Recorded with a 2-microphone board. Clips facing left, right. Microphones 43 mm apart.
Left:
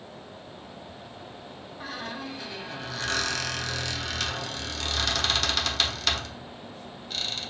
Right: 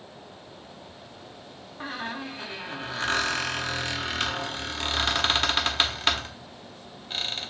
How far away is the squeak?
About 0.7 m.